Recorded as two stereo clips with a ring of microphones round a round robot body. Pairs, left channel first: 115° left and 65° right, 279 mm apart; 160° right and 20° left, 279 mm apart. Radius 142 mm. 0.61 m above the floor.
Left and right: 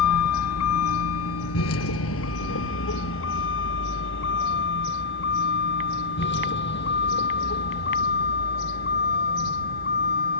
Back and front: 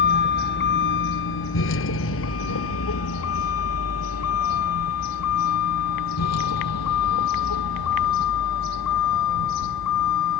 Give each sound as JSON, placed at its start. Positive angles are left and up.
{"t": 0.0, "sound": "a vehicle", "azimuth_deg": 145}